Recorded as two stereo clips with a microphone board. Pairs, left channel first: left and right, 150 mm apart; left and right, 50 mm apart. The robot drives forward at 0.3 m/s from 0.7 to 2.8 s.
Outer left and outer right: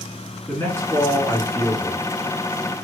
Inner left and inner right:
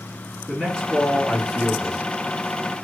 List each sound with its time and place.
0.5 s a man speaking: 15° left (ahead or behind), 1.5 m